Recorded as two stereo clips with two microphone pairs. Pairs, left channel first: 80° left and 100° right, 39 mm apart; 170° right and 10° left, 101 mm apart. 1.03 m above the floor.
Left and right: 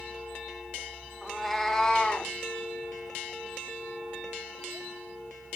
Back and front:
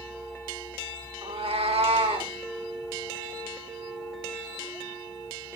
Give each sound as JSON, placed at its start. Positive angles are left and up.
{"t": 1.2, "sound": "a cat meowing", "azimuth_deg": -15, "distance_m": 1.0}